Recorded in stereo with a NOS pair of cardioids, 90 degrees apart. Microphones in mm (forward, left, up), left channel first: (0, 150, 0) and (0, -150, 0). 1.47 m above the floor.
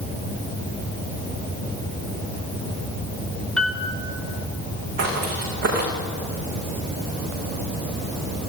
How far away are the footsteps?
About 6.5 m.